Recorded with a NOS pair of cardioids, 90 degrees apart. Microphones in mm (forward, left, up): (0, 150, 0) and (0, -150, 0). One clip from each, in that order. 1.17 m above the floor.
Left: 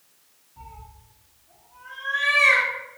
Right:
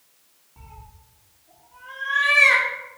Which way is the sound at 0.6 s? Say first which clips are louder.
Left 3 dB; 40° right.